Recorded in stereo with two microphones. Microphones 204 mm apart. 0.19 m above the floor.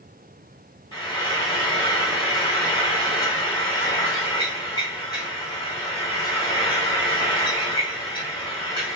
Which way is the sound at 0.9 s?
25° left (ahead or behind).